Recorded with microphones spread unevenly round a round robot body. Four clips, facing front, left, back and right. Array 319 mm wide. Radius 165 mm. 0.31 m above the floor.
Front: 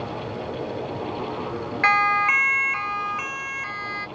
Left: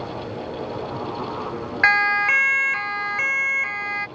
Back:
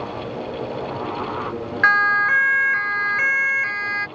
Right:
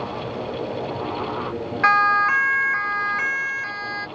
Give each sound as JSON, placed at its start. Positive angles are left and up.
{"t": 1.8, "sound": "a siren", "azimuth_deg": 135}